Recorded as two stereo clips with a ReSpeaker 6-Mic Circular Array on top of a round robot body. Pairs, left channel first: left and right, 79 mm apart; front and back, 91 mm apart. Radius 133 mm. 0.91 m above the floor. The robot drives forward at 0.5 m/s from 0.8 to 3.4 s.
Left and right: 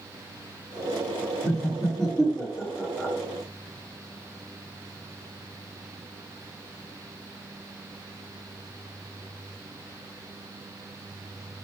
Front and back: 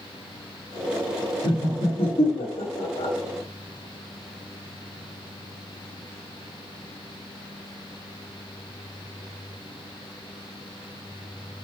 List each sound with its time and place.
1.4 s laughter: straight ahead, 2.5 m